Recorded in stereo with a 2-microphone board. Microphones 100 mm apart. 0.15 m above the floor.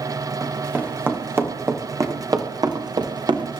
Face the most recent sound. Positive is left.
turn(degrees=-55)  # may be behind; listen again after turning